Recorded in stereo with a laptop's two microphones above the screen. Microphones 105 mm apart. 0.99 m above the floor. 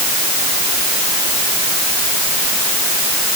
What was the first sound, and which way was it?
Only background noise.